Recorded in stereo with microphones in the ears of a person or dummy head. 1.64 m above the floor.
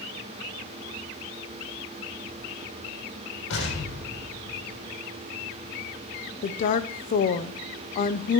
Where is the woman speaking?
40° left (ahead or behind), 0.7 m.